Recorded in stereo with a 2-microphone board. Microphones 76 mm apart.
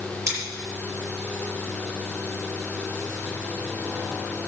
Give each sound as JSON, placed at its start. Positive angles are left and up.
{"t": 0.3, "sound": "scissors", "side_deg": -40, "distance_m": 6.5}